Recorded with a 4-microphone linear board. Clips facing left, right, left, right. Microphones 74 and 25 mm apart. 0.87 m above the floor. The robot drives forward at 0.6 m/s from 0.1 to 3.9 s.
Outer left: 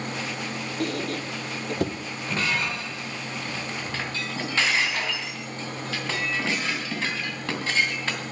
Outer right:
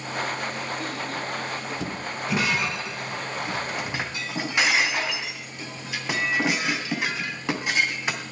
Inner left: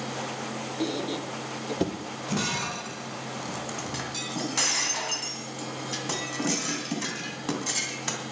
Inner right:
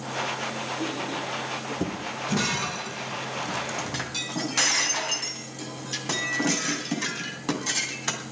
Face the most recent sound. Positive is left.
turn(degrees=-15)  # may be behind; listen again after turning